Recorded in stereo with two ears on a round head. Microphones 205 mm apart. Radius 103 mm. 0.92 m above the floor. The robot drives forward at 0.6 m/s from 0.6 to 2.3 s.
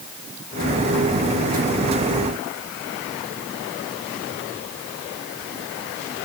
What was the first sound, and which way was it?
Only background noise.